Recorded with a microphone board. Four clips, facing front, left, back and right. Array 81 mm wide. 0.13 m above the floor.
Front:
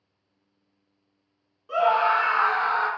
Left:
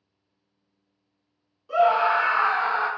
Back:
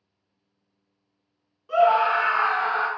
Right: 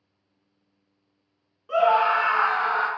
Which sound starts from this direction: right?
A scream, at 1.7 s.